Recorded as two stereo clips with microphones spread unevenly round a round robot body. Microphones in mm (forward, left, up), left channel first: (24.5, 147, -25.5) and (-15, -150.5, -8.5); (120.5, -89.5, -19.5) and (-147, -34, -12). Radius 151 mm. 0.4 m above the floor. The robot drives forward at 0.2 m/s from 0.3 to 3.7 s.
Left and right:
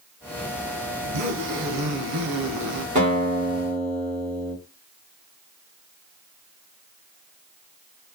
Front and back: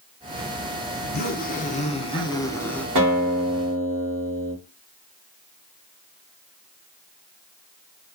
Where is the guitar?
165° right, 1.5 m.